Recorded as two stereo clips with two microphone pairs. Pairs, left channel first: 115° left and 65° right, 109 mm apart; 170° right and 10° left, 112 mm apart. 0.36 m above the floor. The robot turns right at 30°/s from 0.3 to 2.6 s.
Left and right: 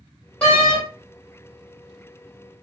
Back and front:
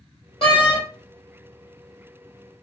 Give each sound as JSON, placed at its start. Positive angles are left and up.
{"t": 0.4, "sound": "a door slam", "azimuth_deg": -165, "distance_m": 1.6}